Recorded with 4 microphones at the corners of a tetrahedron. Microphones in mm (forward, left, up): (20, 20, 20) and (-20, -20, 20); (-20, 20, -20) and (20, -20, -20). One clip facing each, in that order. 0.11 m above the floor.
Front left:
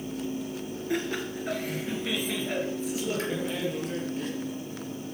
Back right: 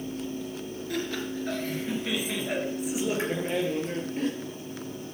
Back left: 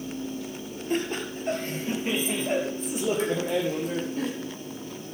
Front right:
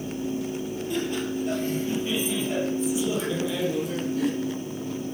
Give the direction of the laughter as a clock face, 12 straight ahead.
9 o'clock.